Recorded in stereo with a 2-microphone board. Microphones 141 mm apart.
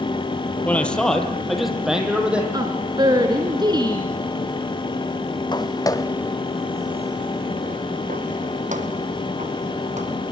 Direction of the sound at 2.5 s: 30° right (ahead or behind).